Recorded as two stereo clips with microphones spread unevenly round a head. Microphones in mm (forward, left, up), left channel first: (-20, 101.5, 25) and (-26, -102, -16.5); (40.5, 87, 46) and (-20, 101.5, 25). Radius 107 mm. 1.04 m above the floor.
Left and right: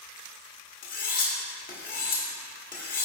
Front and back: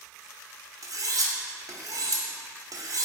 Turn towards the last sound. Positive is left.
turn(degrees=135)